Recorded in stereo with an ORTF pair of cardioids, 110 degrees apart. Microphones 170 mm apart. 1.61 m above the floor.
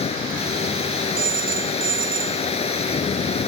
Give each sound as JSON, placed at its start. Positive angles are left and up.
{"t": 0.0, "sound": "a machine running", "azimuth_deg": 35}
{"t": 1.2, "sound": "a phone ringing", "azimuth_deg": -55}